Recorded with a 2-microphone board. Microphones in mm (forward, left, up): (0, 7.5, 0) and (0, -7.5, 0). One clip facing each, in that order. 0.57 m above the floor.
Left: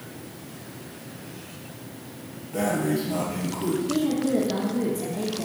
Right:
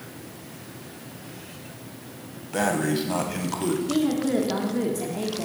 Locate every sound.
2.5 s breathing: 65° right (ahead or behind), 0.7 m
3.9 s a woman speaking: 30° right (ahead or behind), 0.9 m